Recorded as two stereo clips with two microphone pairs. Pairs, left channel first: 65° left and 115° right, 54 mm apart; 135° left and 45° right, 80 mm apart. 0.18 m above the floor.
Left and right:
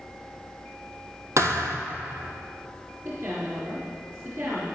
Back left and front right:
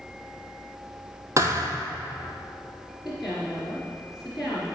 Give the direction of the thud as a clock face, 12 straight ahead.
3 o'clock.